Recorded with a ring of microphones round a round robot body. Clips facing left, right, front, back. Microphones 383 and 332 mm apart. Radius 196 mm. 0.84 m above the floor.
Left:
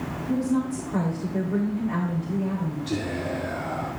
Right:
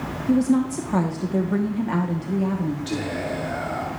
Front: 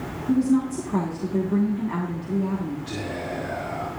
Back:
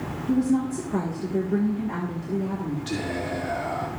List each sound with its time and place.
0.3 s a woman speaking: 80° right, 1.4 m
2.9 s whispering: 160° right, 2.5 m